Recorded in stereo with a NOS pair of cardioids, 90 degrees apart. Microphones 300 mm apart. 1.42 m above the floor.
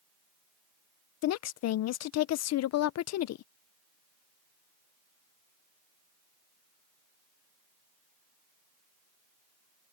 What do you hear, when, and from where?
1.2 s a woman speaking: 70° left